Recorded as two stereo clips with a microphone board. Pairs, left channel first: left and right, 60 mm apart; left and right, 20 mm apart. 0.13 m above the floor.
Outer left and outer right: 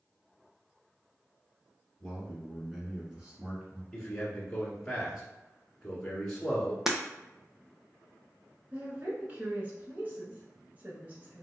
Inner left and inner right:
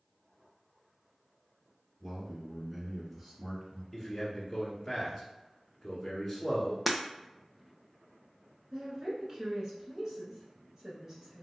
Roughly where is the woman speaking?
Right.